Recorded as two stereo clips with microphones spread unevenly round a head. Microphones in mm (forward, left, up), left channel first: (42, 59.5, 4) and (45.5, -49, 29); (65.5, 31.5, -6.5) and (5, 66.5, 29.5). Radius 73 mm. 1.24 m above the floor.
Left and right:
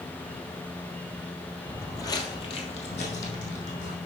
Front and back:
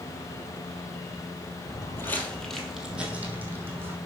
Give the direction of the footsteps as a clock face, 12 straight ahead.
12 o'clock.